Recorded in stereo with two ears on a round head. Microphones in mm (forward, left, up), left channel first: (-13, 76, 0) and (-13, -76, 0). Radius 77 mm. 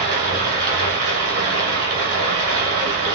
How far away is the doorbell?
No doorbell in this recording.